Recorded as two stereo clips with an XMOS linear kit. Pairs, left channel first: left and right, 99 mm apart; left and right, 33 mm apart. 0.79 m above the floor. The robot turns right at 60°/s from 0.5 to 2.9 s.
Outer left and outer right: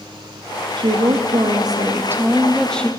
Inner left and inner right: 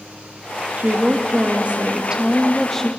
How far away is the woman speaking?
About 0.7 m.